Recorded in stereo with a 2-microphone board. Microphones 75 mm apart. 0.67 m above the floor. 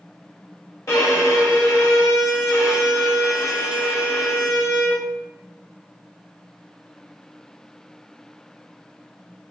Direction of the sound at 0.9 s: 40° left (ahead or behind).